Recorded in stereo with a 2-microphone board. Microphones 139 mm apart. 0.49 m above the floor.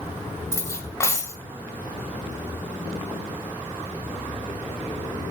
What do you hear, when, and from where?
0.5 s cutlery clinking: 20° left (ahead or behind), 1.6 m